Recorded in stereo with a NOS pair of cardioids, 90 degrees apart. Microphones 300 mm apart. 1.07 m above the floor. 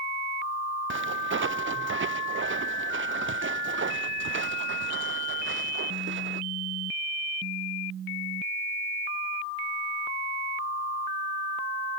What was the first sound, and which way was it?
Footsteps, 40° right.